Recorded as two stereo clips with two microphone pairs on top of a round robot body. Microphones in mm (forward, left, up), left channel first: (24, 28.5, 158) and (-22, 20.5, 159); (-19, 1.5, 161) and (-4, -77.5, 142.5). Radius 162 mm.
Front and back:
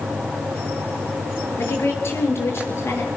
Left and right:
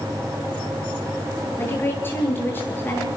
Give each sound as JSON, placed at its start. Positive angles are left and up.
{"t": 1.6, "sound": "a woman speaking", "azimuth_deg": 35, "distance_m": 9.5}